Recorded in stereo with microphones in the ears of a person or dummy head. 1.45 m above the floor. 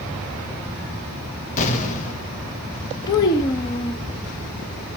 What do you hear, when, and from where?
1.6 s an explosion: 40° left (ahead or behind), 1.9 m
3.1 s a child speaking: 25° left (ahead or behind), 0.8 m